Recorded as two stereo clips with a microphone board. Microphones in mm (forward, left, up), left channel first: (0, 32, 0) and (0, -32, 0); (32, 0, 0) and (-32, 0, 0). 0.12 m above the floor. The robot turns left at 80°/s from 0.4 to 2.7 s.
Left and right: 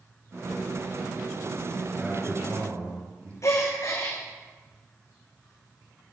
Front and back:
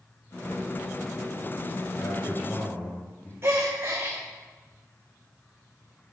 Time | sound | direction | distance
2.0 | a man speaking | straight ahead | 5 m
3.4 | a gasp | 130° left | 2 m